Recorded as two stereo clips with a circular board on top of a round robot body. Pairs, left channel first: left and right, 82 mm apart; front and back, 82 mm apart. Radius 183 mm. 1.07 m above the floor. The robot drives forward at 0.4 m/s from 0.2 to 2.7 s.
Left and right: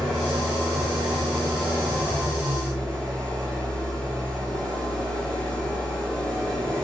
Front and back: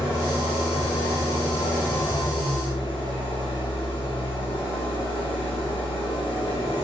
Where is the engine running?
5° left, 3 m; by 6.8 s 10° left, 1.9 m.